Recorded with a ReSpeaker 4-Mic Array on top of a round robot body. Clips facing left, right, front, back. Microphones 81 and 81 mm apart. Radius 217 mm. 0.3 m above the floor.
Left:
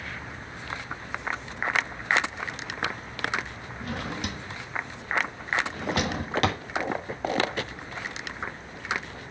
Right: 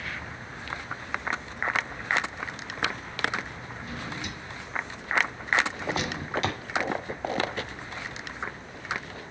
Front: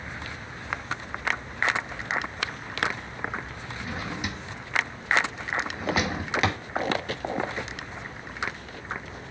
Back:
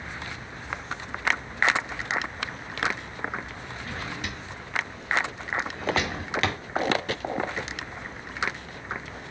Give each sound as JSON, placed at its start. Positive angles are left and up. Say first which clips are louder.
{"t": 3.8, "sound": "a drawer", "louder": "left 4 dB, front 2 dB", "azimuth_deg": 80, "distance_m": 1.3}